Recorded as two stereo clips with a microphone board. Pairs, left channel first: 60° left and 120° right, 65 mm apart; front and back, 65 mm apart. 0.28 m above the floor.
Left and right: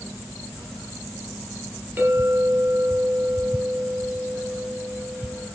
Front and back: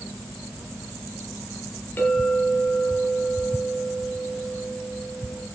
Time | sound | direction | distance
2.0 | a clink | 60° right | 5 m